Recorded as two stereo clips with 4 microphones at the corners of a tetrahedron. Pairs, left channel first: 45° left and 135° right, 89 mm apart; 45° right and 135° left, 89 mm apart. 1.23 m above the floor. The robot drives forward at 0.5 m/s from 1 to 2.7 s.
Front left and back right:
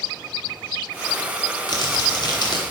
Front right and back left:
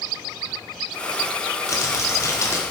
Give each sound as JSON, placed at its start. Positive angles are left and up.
{"t": 1.7, "sound": "crumpling", "azimuth_deg": 10, "distance_m": 2.0}